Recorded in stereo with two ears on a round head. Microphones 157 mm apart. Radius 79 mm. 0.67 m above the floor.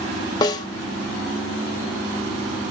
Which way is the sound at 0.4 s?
20° left (ahead or behind).